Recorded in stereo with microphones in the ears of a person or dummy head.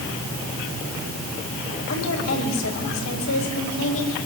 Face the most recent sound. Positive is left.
turn(degrees=85)